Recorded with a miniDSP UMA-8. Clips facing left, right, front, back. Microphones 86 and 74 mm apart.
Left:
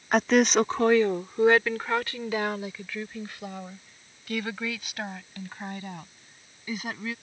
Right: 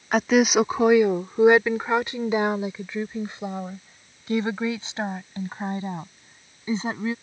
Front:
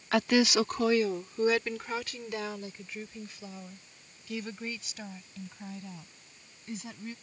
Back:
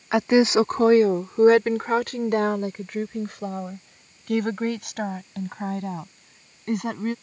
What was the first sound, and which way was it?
A woman speaking, 175° right.